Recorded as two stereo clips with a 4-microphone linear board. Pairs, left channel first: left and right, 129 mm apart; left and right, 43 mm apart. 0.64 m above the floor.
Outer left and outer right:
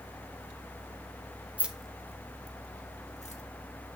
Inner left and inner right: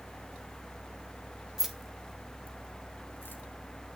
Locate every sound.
1.6 s keys jangling: 10° right (ahead or behind), 0.8 m; by 3.4 s 60° left (ahead or behind), 1.3 m